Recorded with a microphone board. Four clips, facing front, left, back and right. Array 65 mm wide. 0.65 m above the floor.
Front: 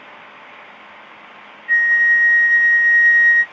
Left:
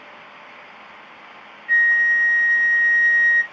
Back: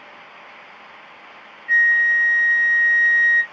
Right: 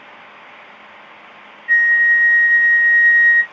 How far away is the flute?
About 1.4 m.